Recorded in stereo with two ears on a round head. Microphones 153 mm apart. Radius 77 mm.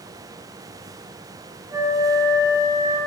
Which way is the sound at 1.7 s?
20° right (ahead or behind).